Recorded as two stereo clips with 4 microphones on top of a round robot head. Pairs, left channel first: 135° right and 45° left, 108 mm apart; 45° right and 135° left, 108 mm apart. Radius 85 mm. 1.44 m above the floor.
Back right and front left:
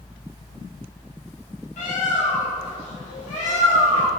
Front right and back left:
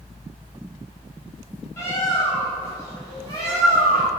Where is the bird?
110° right, 0.8 m.